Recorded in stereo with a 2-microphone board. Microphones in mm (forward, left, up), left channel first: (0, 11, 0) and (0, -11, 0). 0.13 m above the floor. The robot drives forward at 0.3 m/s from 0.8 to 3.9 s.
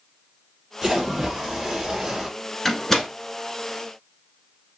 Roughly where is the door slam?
Centre.